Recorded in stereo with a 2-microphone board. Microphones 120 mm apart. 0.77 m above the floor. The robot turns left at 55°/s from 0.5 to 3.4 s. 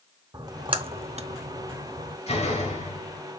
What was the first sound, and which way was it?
A splash, 35° right (ahead or behind).